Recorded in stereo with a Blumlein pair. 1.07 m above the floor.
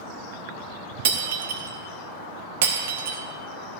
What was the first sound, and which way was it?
Breaking glass, 55° right.